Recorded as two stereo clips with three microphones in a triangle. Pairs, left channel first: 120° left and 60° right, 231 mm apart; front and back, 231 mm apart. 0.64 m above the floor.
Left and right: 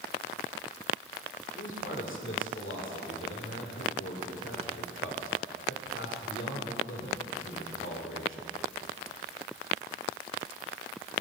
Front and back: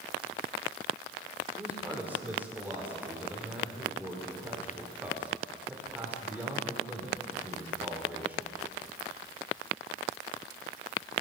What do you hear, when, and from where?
1.6 s a man speaking: 100° left, 1.9 m